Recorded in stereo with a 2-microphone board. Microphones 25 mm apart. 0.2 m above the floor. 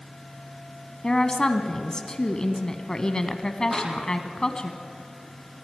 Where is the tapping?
5° right (ahead or behind), 8.5 m.